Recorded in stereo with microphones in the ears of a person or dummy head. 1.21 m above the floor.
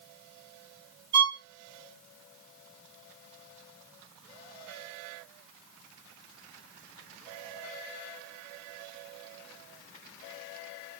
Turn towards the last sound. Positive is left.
turn(degrees=-25)  # may be behind; listen again after turning